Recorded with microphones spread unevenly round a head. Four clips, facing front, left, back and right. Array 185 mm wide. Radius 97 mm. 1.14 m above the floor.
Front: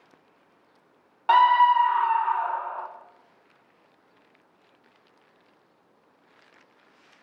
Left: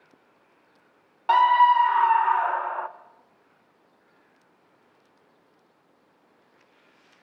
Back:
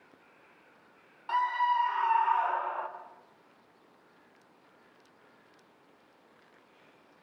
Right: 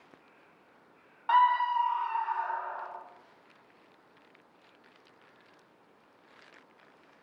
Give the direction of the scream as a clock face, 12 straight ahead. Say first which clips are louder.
Left 7 dB, front 11 dB; 10 o'clock.